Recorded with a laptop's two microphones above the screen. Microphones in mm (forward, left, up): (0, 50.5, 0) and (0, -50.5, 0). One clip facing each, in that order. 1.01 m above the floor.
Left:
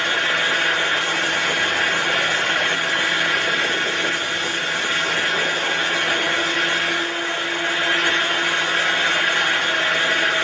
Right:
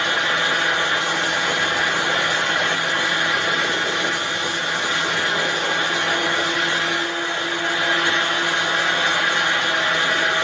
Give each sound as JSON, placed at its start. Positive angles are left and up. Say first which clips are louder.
{"t": 0.0, "sound": "a fan", "louder": "right 1 dB", "side_deg": -20, "distance_m": 1.8}